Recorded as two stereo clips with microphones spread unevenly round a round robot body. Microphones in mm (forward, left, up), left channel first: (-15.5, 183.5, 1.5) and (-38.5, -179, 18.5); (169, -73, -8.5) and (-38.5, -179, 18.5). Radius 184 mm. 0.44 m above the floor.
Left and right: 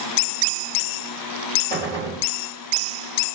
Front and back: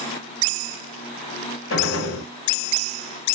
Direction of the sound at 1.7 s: 5° left.